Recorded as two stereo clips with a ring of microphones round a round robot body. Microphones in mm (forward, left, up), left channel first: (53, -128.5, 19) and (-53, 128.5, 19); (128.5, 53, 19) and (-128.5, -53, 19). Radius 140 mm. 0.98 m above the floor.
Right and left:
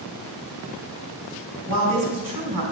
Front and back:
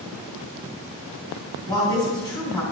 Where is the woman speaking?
100° left, 3.5 m.